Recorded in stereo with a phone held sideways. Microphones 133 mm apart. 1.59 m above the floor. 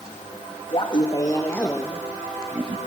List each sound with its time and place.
0.7 s laughter: 40° left (ahead or behind), 2 m; by 2.8 s 25° right (ahead or behind), 1.8 m